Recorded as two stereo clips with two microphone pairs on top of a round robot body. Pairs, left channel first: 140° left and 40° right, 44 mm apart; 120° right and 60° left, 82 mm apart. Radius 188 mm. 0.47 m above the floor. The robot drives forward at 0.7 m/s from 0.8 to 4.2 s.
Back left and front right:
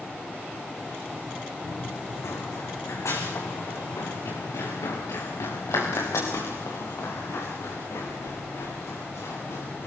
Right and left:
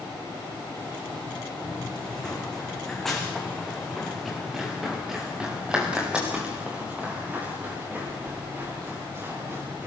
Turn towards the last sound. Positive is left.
turn(degrees=120)